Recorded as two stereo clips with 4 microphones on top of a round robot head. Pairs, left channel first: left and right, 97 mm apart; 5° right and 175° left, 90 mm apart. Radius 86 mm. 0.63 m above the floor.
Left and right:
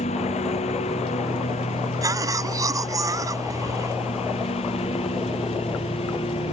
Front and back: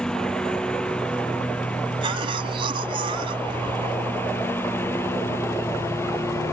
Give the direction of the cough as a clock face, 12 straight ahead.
5 o'clock.